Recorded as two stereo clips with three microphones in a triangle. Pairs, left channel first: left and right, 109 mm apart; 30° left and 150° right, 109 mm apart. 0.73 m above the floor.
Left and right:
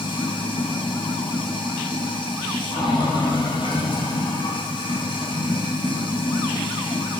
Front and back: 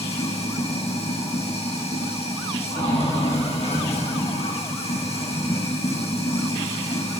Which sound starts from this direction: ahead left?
Running water, at 0.0 s.